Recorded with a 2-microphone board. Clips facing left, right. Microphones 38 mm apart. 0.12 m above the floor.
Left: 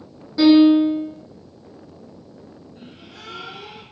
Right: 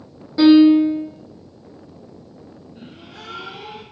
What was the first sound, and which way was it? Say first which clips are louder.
A piano: right 2 dB; 10° right (ahead or behind).